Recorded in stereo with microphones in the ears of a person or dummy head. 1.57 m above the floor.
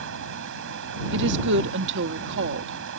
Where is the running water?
65° right (ahead or behind).